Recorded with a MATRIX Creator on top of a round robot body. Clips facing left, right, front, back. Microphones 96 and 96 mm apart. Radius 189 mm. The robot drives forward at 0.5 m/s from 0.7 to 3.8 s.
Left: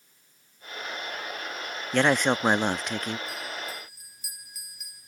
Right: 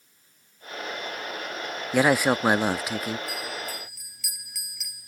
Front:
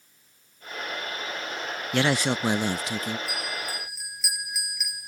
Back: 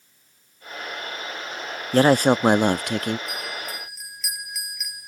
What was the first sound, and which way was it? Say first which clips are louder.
A man speaking: right 2 dB, back 8 dB; 170° right.